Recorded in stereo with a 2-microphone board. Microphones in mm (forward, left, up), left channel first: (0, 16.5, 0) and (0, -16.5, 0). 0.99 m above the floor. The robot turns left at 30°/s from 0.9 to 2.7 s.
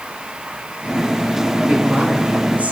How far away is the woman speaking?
About 6 m.